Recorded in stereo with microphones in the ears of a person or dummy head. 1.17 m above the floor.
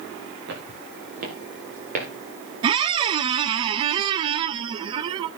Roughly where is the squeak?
Right.